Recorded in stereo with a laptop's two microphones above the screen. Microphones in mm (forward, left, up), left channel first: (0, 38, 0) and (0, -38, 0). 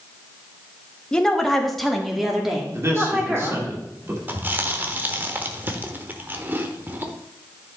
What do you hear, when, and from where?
1.1 s a woman speaking: 10° left (ahead or behind), 1.3 m; by 3.7 s 10° right (ahead or behind), 3 m
2.7 s a man speaking: 35° right (ahead or behind), 2 m
4.3 s chewing: 25° right (ahead or behind), 1.1 m